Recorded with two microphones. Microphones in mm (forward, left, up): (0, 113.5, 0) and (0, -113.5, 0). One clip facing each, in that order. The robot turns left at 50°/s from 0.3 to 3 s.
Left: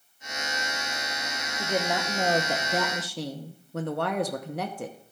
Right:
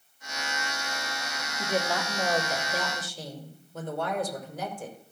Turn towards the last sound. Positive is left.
turn(degrees=105)